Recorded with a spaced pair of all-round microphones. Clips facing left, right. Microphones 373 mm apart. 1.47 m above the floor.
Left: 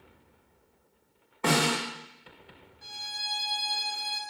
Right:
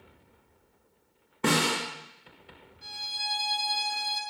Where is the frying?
I don't hear frying.